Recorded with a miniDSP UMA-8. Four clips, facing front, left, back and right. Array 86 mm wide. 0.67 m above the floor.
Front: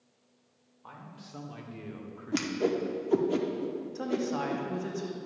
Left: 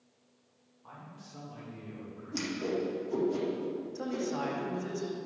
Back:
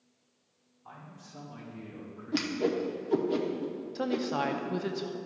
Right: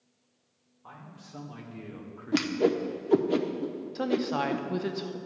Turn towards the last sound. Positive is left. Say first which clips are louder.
# right 9 dB, back 2 dB
turn(degrees=-110)